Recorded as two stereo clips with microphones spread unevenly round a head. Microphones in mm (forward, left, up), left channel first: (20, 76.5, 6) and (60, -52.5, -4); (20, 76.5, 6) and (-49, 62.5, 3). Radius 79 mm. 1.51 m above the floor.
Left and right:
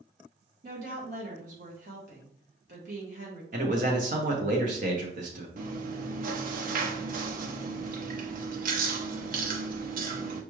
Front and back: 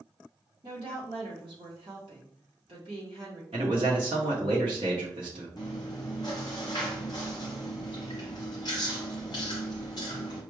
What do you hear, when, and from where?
0.6 s a woman speaking: 120° right, 1.2 m
3.5 s a man speaking: 120° right, 0.9 m
5.6 s chewing: 45° right, 0.7 m